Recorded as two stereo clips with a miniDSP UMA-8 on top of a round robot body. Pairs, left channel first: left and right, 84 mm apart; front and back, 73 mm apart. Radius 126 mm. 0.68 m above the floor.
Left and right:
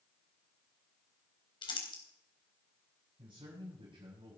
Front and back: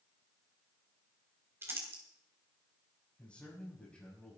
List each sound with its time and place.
1.6 s crumpling: 120° left, 3.5 m
3.2 s a man speaking: 75° right, 6.5 m